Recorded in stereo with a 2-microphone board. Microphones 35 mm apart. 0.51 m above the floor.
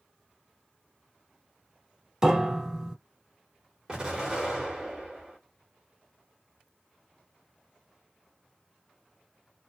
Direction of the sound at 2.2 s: 20° right (ahead or behind).